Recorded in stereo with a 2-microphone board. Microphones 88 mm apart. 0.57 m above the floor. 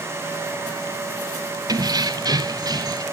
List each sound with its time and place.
1.7 s keys jangling: 45° right (ahead or behind), 1.1 m; by 3.0 s 50° right (ahead or behind), 1.8 m